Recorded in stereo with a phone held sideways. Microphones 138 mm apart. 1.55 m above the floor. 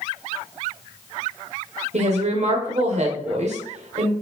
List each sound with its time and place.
1.9 s a woman speaking: 55° right (ahead or behind), 1.0 m